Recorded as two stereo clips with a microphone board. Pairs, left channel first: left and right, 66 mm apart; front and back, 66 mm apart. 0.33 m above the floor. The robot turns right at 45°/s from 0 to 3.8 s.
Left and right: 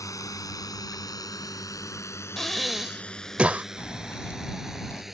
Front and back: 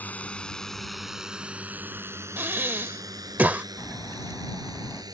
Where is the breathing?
170° left; by 3.6 s 135° right.